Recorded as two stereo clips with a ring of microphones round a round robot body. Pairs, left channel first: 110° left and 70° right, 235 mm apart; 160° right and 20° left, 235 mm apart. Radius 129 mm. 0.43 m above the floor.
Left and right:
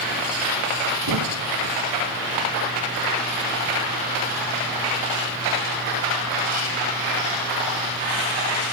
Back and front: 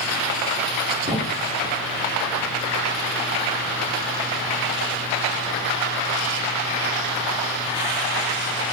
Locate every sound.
1.1 s a thud: 50° right, 2 m